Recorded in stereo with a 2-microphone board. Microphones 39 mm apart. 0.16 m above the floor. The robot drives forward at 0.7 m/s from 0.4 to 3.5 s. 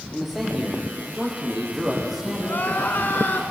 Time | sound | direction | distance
0.1 | a man speaking | centre (ahead or behind) | 6.5 m
2.4 | crying | 60° left (ahead or behind) | 5 m